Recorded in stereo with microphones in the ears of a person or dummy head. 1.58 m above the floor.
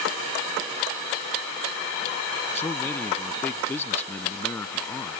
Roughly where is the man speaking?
Centre.